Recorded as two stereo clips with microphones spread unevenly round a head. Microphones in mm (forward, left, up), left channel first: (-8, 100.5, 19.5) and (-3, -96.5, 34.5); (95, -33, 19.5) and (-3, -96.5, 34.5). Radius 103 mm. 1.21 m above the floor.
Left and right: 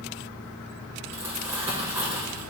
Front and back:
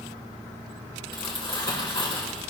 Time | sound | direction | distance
1.1 | crumpling | 10° right | 4.5 m